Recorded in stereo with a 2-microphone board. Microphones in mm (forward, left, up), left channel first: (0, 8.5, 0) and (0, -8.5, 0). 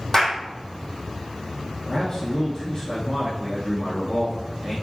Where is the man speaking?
15° left (ahead or behind), 3 m.